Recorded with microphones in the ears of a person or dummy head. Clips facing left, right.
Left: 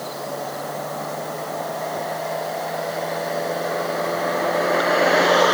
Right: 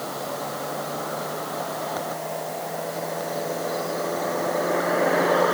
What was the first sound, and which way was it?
Only background noise.